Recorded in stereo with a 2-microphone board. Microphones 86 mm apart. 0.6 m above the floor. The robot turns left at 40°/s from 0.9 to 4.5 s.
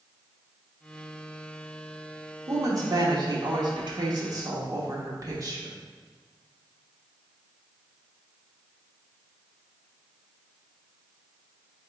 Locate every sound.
2.5 s a woman speaking: 45° right, 1.1 m; by 5.8 s 125° right, 1.1 m